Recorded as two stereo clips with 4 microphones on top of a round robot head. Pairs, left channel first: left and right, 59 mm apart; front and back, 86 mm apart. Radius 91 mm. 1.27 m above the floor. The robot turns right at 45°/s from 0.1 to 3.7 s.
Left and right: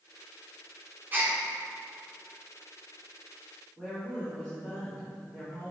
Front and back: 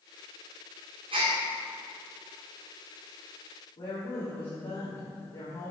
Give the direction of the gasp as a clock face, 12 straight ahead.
5 o'clock.